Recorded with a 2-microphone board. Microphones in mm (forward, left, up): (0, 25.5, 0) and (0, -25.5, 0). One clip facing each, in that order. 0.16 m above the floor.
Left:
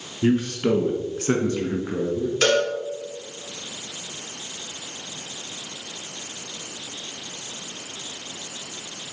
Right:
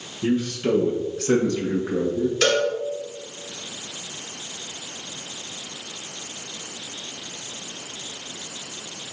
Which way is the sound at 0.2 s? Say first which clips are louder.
Left 2 dB; 45° left (ahead or behind).